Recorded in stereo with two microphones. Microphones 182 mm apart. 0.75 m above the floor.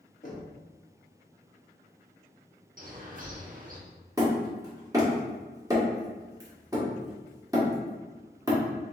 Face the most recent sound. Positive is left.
turn(degrees=-20)  # may be behind; listen again after turning